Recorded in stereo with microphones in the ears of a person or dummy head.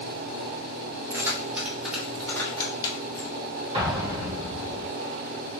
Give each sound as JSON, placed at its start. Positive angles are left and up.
{"t": 1.1, "sound": "keys jangling", "side_deg": -15, "distance_m": 1.9}
{"t": 3.7, "sound": "an explosion", "side_deg": -30, "distance_m": 1.9}